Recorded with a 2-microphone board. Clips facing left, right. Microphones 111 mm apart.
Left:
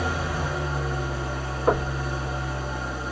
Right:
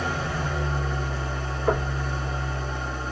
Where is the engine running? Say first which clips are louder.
Left 1 dB; 10° left (ahead or behind), 1.7 m.